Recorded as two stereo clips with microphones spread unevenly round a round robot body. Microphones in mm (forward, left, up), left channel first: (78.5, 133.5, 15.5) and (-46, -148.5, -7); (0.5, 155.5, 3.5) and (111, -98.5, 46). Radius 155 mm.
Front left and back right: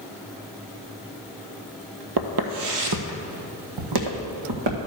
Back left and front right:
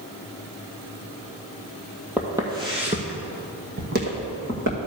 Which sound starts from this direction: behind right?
Footsteps, at 2.2 s.